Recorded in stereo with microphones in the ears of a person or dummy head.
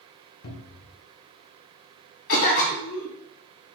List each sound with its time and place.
0.4 s a cupboard door: 75° left (ahead or behind), 0.7 m
2.3 s a cough: 65° left (ahead or behind), 1.9 m